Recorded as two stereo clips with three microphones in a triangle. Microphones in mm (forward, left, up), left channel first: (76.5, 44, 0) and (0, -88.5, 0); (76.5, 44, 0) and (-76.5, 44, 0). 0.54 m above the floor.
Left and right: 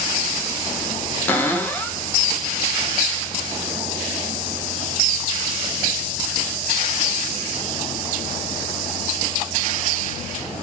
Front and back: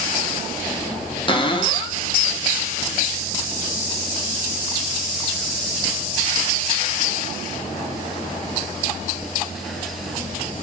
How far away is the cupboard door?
About 0.6 m.